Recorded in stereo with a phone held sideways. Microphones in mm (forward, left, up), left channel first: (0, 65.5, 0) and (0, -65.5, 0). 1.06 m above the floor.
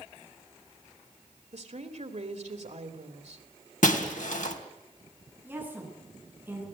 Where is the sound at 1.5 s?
65° right (ahead or behind), 2.5 m.